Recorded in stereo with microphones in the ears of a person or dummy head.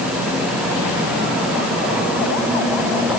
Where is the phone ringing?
I don't hear a phone ringing.